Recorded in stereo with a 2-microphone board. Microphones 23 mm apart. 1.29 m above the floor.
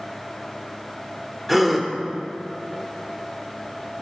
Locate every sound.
1.5 s a gasp: 5° right (ahead or behind), 0.9 m